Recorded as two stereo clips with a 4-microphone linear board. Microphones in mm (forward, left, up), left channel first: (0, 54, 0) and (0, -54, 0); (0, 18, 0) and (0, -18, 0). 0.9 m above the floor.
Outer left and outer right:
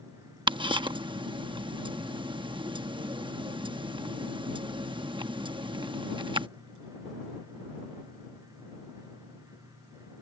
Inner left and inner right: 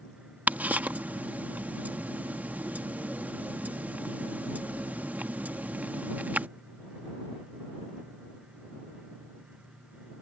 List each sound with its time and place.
0.5 s ticking: 50° right (ahead or behind)